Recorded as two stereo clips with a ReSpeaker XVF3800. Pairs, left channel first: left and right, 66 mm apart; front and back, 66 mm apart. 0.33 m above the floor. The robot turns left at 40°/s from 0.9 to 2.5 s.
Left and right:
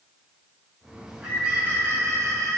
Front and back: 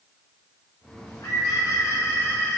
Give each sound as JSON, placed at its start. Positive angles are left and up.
{"t": 1.1, "sound": "a bird", "azimuth_deg": -5, "distance_m": 1.2}